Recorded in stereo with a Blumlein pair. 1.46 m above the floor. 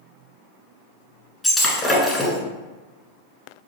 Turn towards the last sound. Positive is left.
turn(degrees=15)